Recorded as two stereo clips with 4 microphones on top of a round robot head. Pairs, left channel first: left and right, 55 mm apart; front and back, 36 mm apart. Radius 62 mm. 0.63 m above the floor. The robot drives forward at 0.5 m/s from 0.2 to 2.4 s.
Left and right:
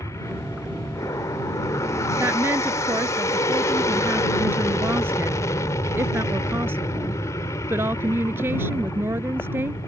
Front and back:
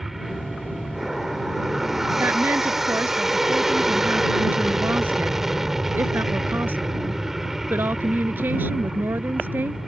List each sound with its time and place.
0.0 s an aircraft: 95° left; by 9.9 s 100° left
2.2 s a woman speaking: 140° right